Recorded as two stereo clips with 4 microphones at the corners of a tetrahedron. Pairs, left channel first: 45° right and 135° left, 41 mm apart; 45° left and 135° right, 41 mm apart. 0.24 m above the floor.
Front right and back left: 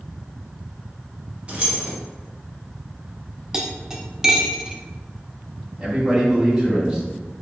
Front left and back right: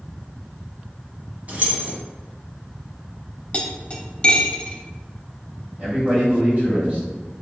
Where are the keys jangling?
170° right, 1.2 m.